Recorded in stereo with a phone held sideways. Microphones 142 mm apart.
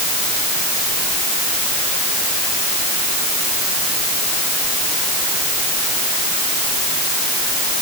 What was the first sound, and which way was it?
Only background noise.